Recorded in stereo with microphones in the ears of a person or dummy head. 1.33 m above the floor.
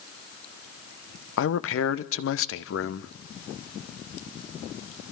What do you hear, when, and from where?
1.4 s a man speaking: 70° left (ahead or behind), 1.1 m